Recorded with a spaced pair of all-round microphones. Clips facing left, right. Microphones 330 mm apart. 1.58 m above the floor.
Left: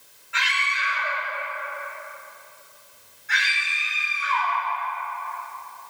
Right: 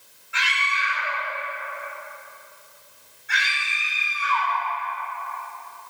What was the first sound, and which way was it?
A scream, centre (ahead or behind).